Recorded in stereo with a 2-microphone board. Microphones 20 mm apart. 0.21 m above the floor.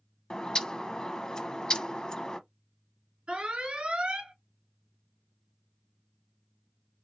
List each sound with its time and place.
0.3 s a bird: 35° left (ahead or behind), 0.7 m
3.3 s an alarm: 65° right (ahead or behind), 2.5 m